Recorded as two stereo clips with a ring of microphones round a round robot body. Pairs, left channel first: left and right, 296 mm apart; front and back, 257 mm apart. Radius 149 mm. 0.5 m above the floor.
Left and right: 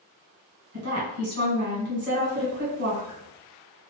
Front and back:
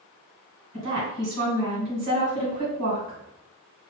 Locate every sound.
0.7 s a woman speaking: 140° right, 1.9 m